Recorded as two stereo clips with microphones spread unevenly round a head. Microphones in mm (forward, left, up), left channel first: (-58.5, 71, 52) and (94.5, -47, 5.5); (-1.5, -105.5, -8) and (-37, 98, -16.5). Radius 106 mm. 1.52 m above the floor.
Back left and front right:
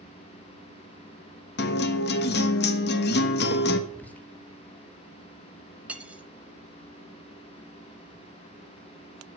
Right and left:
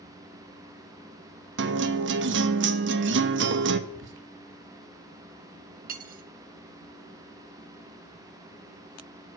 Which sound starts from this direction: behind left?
A guitar, at 1.6 s.